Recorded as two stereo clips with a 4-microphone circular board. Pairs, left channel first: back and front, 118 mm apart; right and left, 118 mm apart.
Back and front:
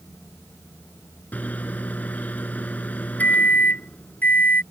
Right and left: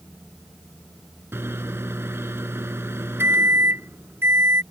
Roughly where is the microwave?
Behind left.